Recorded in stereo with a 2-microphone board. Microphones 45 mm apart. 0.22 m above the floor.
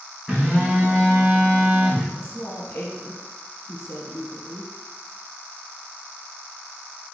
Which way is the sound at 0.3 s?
5° right (ahead or behind).